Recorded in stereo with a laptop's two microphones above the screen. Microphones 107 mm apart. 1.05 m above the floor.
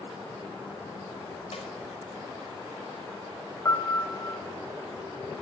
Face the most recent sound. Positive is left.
turn(degrees=25)  # may be behind; listen again after turning